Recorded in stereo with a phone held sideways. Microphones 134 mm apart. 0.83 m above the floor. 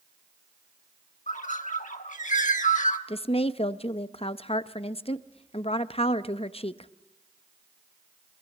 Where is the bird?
70° left (ahead or behind), 1.3 m.